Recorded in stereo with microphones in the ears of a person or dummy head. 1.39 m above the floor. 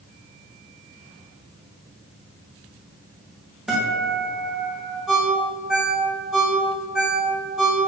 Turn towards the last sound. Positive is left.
turn(degrees=-5)  # may be behind; listen again after turning